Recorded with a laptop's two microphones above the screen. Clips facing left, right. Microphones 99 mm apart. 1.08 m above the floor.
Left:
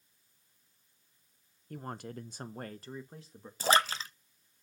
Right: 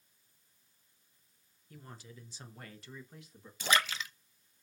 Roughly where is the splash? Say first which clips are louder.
Left 4 dB; left.